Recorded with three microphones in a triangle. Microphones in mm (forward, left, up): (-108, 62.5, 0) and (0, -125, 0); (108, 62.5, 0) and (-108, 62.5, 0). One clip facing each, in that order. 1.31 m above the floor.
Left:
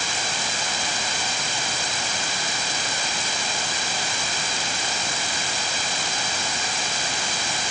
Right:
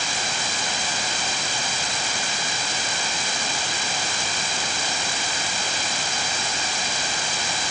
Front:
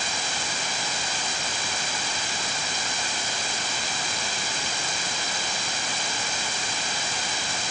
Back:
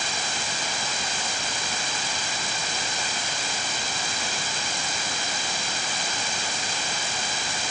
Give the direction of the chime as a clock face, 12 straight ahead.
No chime in this recording.